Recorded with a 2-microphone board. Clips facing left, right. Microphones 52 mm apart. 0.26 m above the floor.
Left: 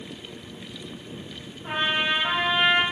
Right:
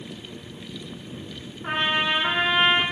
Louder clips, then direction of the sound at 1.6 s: Right 1 dB; 60° right (ahead or behind).